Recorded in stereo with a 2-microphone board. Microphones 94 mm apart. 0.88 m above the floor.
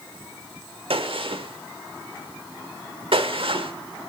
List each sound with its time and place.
0.9 s a gunshot: 70° right (ahead or behind), 1.1 m